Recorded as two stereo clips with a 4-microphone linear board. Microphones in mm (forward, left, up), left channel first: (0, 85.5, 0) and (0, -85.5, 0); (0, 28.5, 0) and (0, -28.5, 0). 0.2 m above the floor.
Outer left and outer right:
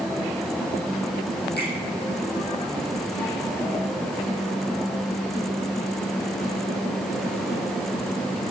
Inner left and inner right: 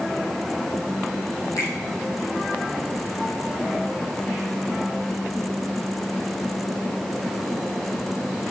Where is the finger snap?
75° left (ahead or behind), 6 m.